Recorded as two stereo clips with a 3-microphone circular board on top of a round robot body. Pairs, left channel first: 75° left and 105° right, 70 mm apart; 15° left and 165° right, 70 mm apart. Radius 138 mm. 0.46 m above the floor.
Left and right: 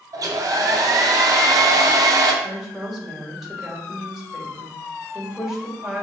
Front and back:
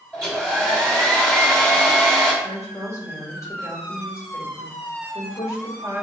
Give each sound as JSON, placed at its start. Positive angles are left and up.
{"t": 0.1, "sound": "a hair dryer", "azimuth_deg": -65, "distance_m": 1.3}
{"t": 2.4, "sound": "a woman speaking", "azimuth_deg": -20, "distance_m": 3.0}